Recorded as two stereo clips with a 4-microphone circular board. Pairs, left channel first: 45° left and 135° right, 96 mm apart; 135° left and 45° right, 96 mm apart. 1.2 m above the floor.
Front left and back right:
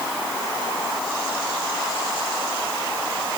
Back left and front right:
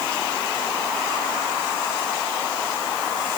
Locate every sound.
Only background noise.